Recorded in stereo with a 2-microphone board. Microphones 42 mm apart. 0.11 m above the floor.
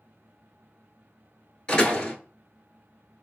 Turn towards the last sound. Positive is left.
turn(degrees=25)  # may be behind; listen again after turning